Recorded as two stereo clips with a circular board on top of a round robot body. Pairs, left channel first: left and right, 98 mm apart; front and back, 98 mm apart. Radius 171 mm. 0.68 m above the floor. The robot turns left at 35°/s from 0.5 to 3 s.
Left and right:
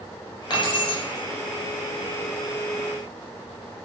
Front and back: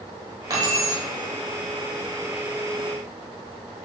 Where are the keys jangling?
130° left, 1.6 m; by 1.0 s 115° left, 1.6 m.